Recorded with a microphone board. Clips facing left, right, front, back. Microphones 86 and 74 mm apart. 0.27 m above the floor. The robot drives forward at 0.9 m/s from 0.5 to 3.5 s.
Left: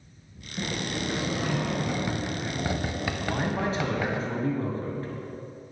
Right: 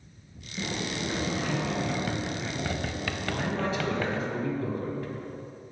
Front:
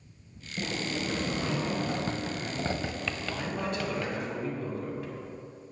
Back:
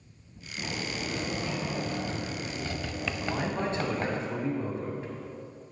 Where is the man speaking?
115° left, 1.4 m; by 5.1 s 130° left, 1.5 m.